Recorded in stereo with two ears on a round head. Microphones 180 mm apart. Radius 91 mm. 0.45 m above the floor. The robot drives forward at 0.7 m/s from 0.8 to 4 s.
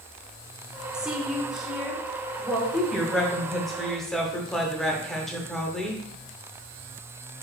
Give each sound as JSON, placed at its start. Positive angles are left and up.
{"t": 0.9, "sound": "a woman speaking", "side_deg": -5, "distance_m": 0.8}
{"t": 2.7, "sound": "a woman speaking", "side_deg": 0, "distance_m": 1.6}